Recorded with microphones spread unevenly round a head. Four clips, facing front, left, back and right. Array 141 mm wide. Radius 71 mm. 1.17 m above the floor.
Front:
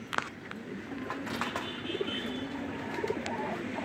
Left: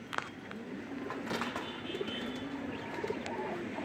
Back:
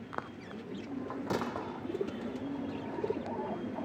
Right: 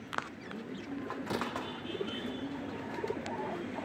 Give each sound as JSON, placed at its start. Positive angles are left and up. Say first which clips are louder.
{"t": 1.3, "sound": "a gunshot", "louder": "right 3 dB, back 1 dB", "azimuth_deg": -155, "distance_m": 1.1}